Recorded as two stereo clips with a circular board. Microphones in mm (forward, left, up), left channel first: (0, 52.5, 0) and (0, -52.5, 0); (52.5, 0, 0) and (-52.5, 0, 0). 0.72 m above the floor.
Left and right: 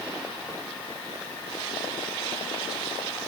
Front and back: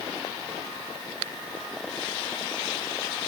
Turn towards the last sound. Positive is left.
No sound to turn to.